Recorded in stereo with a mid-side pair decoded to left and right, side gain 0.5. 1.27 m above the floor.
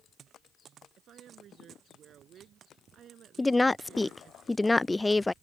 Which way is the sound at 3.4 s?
10° left.